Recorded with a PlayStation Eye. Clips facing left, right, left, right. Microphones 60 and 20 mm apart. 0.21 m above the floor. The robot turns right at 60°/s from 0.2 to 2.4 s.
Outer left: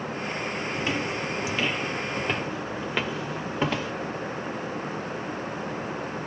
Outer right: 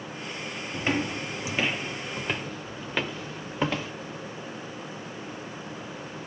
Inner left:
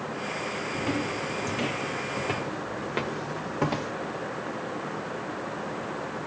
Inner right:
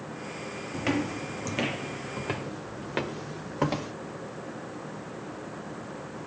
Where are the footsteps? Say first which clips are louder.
Outer right 3 dB, inner right 2 dB; 40° right (ahead or behind), 0.8 m; by 3.9 s 5° right (ahead or behind), 2 m.